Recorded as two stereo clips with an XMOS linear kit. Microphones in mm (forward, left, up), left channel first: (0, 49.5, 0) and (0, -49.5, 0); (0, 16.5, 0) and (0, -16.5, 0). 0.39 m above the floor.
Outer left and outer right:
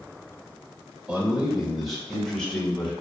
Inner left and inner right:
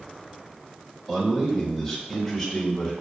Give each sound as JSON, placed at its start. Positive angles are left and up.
{"t": 1.1, "sound": "a man speaking", "side_deg": -10, "distance_m": 1.9}